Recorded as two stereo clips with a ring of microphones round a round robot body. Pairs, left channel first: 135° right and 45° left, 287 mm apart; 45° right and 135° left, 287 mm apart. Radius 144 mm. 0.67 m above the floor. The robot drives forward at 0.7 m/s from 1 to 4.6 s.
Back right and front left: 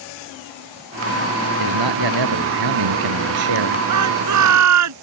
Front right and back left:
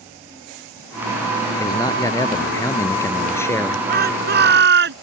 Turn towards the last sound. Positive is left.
turn(degrees=80)